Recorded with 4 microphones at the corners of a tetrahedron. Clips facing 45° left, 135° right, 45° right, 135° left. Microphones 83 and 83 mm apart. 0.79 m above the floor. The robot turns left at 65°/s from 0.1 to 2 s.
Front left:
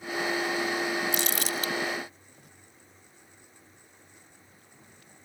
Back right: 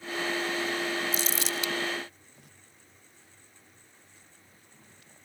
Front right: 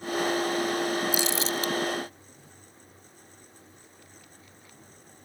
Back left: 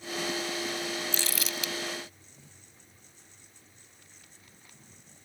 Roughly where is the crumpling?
Ahead left.